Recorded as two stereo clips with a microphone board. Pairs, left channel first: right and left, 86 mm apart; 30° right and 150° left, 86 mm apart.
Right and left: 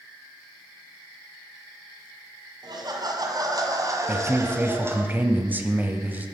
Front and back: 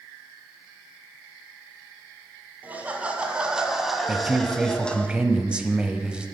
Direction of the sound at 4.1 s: 95° left.